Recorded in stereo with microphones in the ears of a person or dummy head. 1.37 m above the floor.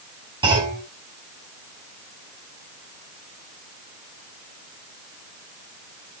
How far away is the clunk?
About 5.5 m.